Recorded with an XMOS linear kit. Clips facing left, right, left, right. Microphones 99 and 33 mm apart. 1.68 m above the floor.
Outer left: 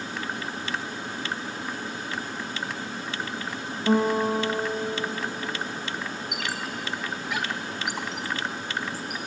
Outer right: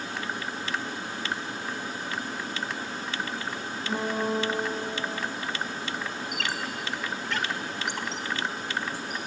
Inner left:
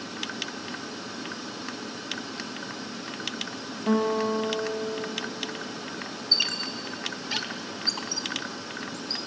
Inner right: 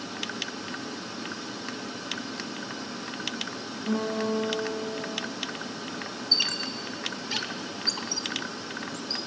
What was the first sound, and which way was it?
A guitar, 65° left (ahead or behind).